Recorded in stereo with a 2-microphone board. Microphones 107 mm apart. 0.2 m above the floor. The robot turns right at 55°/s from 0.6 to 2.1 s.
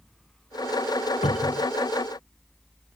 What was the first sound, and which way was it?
A cupboard door, 70° left (ahead or behind).